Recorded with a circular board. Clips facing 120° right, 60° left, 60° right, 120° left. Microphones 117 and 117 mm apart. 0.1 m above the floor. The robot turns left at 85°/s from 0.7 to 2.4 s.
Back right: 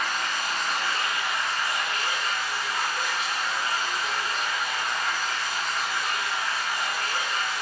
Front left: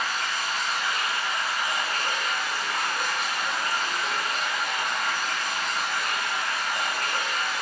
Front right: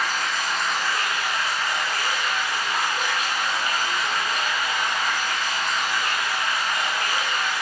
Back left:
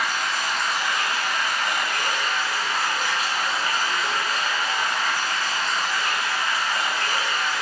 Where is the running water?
150° right, 0.8 m; by 7.6 s 65° left, 0.8 m.